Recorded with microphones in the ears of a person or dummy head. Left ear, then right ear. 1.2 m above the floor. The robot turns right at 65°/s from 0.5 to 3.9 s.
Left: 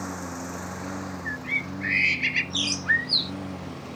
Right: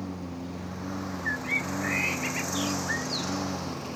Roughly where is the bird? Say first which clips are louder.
Even; ahead.